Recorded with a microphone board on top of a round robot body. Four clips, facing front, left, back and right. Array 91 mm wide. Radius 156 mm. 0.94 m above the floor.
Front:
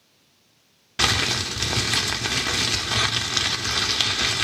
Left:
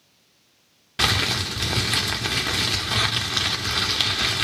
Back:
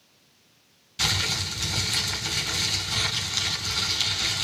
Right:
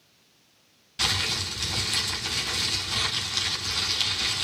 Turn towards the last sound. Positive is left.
turn(degrees=45)